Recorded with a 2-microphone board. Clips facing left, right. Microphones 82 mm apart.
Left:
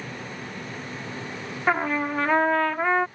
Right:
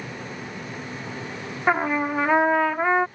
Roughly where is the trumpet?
Centre.